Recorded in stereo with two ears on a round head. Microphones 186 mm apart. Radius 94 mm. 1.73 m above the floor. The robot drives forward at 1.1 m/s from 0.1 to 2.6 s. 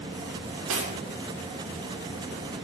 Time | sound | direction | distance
0.7 | cutlery clinking | 75° right (ahead or behind) | 3 m